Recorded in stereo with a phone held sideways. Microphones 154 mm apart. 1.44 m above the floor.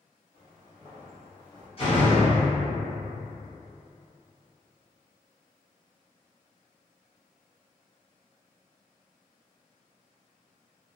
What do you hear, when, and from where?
0.3 s footsteps: 40° left (ahead or behind), 1.8 m; by 1.7 s 15° left (ahead or behind), 1.8 m
1.8 s a door slam: 40° left (ahead or behind), 1.0 m